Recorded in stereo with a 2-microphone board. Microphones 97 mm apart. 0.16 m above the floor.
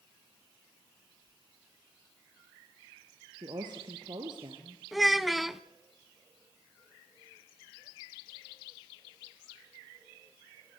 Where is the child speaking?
Centre (ahead or behind), 0.8 m.